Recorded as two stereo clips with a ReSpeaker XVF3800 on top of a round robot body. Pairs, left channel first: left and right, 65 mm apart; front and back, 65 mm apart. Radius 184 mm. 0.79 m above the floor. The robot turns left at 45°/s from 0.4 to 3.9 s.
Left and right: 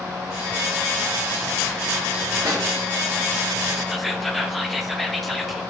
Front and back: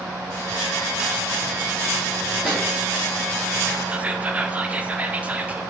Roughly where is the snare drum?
Right.